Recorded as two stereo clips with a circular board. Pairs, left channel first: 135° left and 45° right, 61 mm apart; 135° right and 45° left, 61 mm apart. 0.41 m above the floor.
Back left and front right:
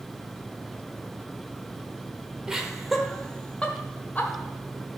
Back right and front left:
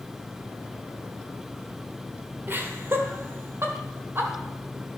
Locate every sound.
2.5 s laughter: 30° left, 1.2 m; by 4.3 s 85° left, 1.6 m